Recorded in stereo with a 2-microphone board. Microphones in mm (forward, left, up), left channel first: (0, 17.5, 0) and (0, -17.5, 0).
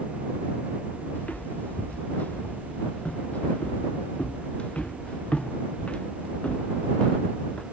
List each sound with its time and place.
1.1 s footsteps: 50° left (ahead or behind); by 7.6 s 30° left (ahead or behind)